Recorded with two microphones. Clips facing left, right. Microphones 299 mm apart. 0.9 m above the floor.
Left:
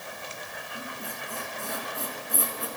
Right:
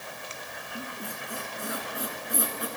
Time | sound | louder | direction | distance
0.8 | a squeak | right 2 dB | 20° right (ahead or behind) | 4 m